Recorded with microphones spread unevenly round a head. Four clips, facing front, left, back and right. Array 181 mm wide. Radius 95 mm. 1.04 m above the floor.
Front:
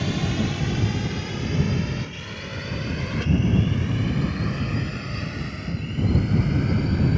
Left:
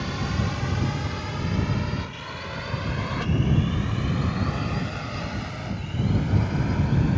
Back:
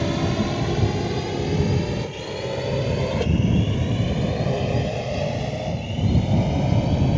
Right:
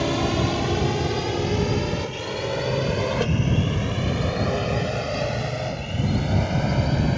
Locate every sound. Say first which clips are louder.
0.0 s a drone: right 7 dB, back 3 dB; 115° right; by 7.2 s 140° right